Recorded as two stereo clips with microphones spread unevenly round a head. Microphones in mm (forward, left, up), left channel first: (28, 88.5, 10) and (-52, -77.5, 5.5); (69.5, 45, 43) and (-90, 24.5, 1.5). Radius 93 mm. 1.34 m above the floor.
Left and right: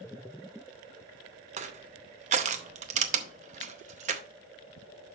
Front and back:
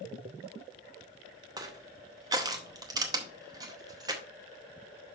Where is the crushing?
95° right, 0.7 m.